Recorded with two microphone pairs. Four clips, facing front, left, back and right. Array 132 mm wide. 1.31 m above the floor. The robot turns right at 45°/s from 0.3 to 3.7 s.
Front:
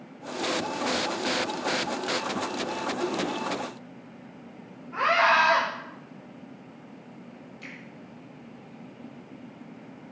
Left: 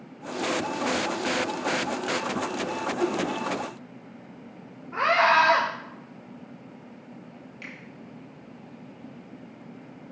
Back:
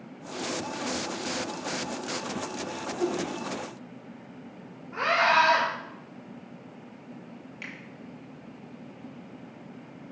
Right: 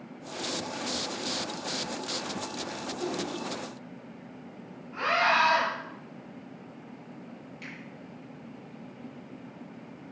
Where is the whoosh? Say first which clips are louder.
Left 6 dB, back 3 dB; 110° left, 1.6 m; by 3.2 s 120° left, 1.6 m.